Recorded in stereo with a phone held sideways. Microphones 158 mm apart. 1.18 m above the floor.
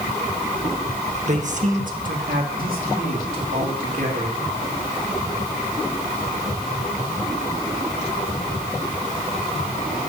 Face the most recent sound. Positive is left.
turn(degrees=-75)  # may be behind; listen again after turning